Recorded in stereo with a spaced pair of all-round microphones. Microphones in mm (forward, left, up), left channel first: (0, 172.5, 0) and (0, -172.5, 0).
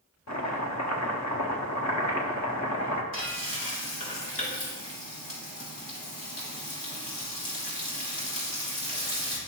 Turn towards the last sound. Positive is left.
turn(degrees=85)